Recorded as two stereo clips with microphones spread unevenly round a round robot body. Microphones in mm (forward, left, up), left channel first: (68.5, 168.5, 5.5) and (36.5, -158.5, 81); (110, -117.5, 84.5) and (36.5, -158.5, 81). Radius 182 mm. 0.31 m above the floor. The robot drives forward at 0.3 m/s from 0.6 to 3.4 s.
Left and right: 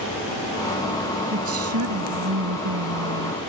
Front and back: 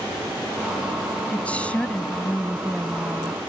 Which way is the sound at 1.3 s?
45° right.